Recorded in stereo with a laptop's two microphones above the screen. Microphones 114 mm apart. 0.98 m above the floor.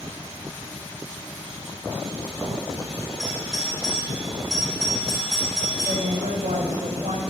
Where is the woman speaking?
85° right, 5 m.